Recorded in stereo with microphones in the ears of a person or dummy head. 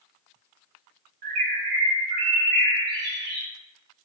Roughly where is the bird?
Right.